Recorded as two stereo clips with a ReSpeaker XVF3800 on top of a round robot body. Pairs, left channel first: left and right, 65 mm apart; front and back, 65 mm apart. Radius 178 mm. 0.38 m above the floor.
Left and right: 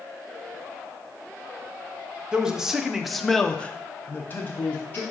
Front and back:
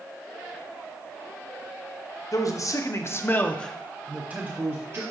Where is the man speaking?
15° right, 1.3 m; by 5.0 s 140° left, 1.2 m.